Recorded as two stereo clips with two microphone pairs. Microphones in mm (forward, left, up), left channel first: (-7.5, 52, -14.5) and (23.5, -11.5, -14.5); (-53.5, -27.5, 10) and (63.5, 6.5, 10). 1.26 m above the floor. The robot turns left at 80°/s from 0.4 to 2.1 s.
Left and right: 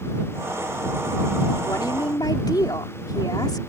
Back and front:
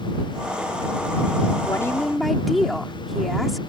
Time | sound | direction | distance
1.6 | a woman speaking | 140° left | ?